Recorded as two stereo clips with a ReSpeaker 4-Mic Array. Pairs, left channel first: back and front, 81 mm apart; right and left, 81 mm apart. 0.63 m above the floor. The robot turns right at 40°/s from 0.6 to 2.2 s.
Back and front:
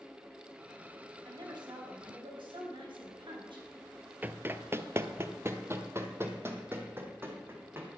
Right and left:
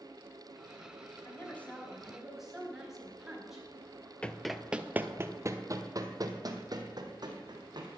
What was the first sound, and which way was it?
A woman speaking, 35° right.